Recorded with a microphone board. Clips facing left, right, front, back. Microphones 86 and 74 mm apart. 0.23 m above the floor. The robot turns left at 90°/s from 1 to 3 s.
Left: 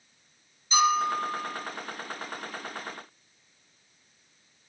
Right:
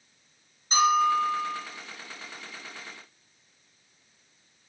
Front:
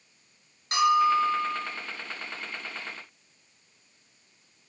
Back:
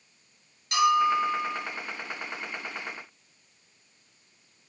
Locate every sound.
0.7 s a bell: 40° right, 4 m; by 1.6 s 95° right, 4 m